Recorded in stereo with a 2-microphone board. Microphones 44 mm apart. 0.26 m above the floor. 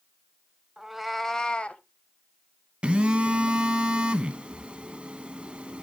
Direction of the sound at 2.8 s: 25° right (ahead or behind).